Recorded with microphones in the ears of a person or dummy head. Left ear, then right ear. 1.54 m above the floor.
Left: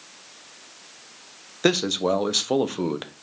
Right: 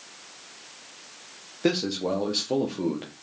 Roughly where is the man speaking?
Left.